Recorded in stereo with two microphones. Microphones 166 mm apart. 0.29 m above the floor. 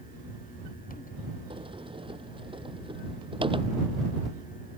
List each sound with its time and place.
1.5 s a sliding door: 30° right (ahead or behind)